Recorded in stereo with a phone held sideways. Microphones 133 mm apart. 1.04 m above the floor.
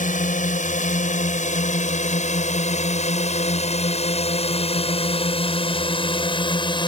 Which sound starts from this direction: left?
A drone, at 0.0 s.